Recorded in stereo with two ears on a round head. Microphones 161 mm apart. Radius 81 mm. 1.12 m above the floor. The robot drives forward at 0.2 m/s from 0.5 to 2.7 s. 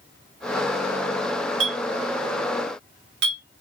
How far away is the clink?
About 1.2 m.